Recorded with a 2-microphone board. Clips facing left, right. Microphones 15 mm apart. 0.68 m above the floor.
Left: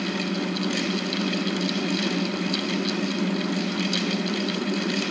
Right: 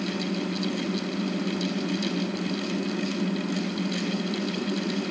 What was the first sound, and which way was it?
Only background noise.